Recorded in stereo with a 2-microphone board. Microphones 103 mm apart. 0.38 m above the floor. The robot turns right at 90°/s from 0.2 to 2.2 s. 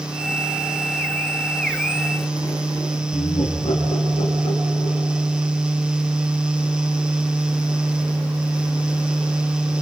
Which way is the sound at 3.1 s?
80° left.